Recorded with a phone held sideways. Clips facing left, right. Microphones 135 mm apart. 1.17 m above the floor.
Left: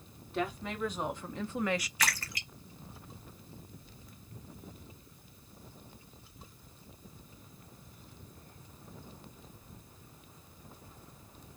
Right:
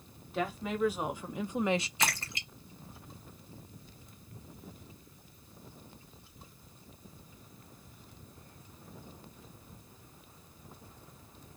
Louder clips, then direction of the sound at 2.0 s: Right 2 dB; 25° right (ahead or behind).